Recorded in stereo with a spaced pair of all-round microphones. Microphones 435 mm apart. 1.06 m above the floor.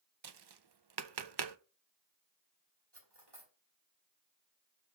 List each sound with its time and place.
0.2 s tapping: 65° right (ahead or behind), 0.5 m
2.9 s cutlery clinking: 65° right (ahead or behind), 2.5 m